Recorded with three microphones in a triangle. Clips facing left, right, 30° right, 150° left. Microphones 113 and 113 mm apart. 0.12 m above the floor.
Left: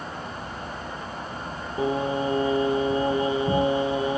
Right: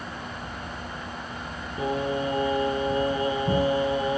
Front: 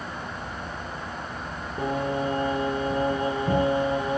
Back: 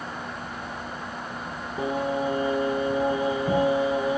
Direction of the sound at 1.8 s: 70° left.